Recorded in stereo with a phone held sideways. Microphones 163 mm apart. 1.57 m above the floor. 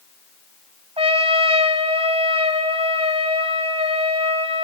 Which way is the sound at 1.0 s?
40° right (ahead or behind).